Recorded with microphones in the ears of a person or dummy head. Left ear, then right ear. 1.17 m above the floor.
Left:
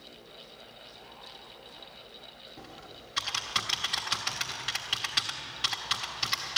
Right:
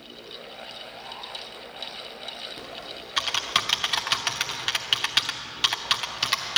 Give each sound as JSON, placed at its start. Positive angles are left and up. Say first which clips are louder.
{"t": 2.6, "sound": "typing on a keyboard", "louder": "right 9 dB", "side_deg": -20, "distance_m": 1.0}